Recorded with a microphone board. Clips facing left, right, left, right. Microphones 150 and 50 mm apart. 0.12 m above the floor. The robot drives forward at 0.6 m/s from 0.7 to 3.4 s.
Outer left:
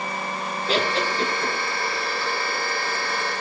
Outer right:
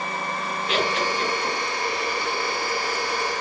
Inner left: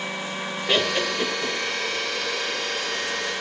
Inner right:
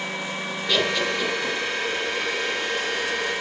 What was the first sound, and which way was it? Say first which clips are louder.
Laughter: outer left 1 dB, even; 35° left (ahead or behind).